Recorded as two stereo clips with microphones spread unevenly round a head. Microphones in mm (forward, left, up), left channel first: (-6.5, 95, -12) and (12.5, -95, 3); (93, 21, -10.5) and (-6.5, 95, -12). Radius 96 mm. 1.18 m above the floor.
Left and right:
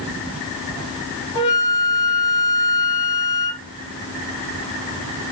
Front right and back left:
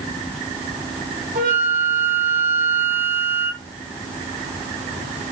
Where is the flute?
160° left, 1.5 m.